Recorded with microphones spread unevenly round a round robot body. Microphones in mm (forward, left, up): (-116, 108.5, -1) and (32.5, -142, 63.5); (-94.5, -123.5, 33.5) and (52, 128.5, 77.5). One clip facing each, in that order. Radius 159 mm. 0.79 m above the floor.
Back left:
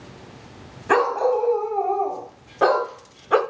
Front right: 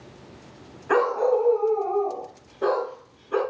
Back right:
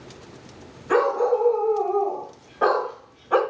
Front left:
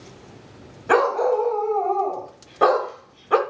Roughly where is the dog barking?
Left.